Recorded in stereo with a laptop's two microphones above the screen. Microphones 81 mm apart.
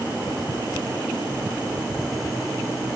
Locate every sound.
Only background noise.